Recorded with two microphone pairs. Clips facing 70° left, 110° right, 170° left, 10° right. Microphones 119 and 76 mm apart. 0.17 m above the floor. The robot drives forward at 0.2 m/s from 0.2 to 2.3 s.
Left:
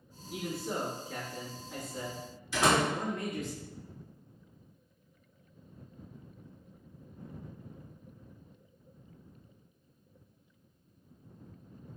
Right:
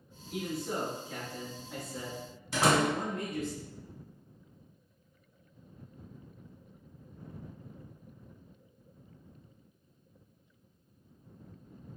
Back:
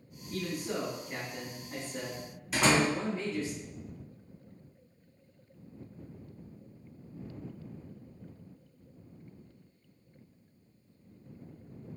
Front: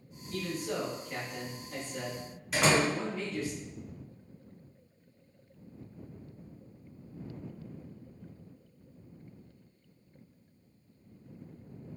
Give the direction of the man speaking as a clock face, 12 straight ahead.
7 o'clock.